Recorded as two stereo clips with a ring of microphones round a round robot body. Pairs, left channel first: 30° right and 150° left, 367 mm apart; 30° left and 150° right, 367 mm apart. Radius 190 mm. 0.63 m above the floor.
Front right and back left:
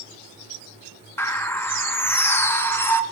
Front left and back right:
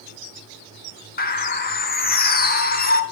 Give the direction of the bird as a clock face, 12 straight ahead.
10 o'clock.